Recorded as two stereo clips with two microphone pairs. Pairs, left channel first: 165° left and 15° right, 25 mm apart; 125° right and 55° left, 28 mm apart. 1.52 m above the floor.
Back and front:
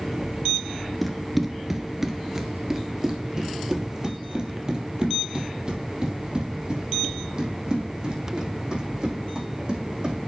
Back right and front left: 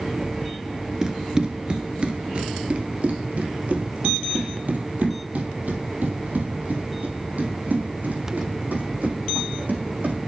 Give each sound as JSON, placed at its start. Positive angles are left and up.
{"t": 1.0, "sound": "running footsteps", "azimuth_deg": 80, "distance_m": 1.5}